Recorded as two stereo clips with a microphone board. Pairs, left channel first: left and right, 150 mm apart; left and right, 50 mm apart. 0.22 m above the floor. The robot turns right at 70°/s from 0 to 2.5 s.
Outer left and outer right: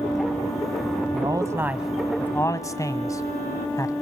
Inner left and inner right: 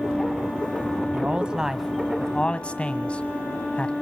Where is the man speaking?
30° right (ahead or behind), 1.3 m; by 3.9 s 20° left (ahead or behind), 1.3 m.